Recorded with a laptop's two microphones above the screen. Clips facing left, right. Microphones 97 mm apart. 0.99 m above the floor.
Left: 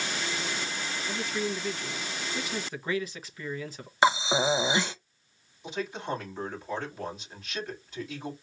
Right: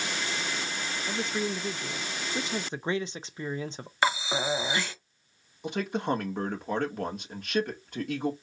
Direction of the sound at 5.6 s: 60° right (ahead or behind).